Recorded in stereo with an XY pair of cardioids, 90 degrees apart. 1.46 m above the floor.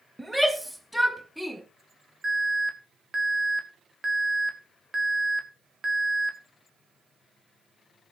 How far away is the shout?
About 2.5 m.